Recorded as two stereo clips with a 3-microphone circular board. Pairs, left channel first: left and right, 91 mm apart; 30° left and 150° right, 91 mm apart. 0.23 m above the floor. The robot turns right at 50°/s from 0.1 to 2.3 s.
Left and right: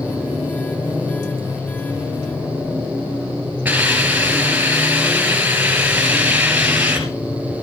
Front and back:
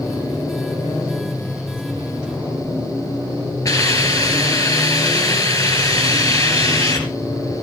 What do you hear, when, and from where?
3.6 s a hiss: 15° right, 4 m